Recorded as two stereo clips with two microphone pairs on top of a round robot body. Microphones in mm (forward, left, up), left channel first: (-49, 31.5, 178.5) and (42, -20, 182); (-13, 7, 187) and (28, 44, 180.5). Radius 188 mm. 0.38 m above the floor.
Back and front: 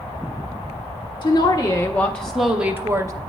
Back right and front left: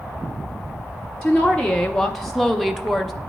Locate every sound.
1.2 s a woman speaking: 135° left, 1.1 m; by 3.1 s 30° right, 1.0 m